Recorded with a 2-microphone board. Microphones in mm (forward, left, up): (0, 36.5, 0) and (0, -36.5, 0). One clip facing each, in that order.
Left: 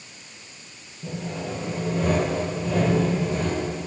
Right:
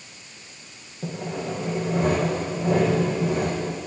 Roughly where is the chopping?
I don't hear chopping.